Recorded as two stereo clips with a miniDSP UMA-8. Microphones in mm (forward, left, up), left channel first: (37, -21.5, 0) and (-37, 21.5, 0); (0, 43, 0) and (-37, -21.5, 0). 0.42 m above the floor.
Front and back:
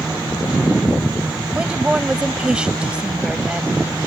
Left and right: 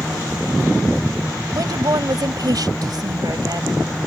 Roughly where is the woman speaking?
Behind right.